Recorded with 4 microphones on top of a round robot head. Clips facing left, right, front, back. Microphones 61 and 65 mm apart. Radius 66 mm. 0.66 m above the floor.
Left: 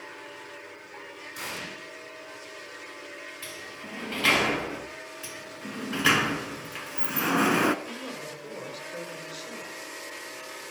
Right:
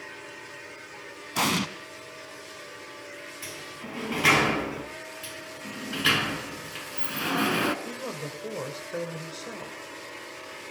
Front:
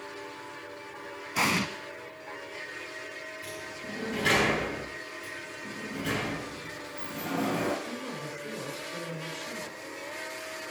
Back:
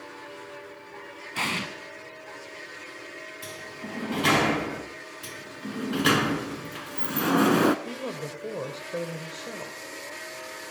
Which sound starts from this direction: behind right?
A woman speaking, at 7.8 s.